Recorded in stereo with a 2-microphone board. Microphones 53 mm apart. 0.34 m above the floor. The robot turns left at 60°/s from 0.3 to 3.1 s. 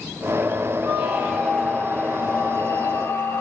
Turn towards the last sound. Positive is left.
turn(degrees=85)